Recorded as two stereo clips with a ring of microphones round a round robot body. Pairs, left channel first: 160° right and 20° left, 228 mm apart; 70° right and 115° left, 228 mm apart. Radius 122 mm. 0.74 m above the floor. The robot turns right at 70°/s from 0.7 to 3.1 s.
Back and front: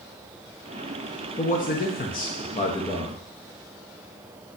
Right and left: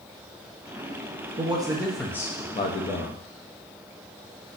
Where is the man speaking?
160° left, 0.7 m; by 3.2 s 80° right, 0.7 m.